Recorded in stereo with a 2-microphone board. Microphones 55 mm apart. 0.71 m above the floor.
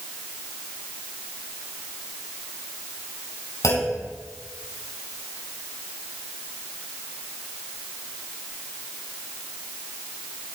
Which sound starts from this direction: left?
A clunk, at 3.6 s.